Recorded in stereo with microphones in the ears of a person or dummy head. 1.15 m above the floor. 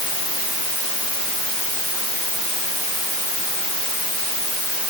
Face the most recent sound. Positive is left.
No sound to turn to.